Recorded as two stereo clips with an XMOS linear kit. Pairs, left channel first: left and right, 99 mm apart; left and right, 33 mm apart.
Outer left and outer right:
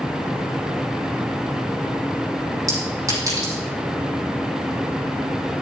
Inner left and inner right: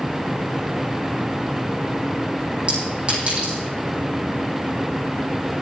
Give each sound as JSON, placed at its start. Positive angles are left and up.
{"t": 2.7, "sound": "a clink", "side_deg": -30, "distance_m": 8.0}